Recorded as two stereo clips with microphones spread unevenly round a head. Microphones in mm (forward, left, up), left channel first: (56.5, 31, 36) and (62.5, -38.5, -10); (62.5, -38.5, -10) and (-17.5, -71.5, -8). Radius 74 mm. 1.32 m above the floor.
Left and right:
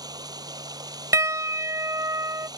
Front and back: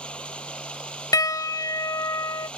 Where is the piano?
30° right.